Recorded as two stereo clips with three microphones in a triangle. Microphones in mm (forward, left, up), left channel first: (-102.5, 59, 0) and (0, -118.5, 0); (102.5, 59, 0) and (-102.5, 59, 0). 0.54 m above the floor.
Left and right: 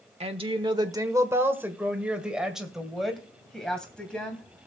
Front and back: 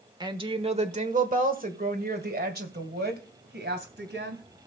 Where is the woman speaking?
115° right, 1.2 m; by 4.4 s 155° right, 3 m.